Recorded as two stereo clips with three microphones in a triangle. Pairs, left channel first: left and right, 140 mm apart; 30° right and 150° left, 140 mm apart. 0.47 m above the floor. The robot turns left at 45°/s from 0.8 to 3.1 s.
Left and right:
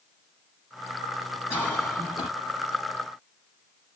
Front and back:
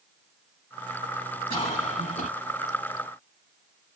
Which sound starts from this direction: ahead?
A cough, at 1.5 s.